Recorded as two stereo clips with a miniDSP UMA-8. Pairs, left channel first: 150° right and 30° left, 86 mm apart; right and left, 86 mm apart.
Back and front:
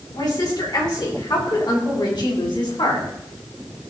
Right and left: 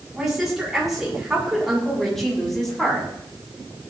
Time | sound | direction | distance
0.1 | a woman speaking | 175° left | 8 m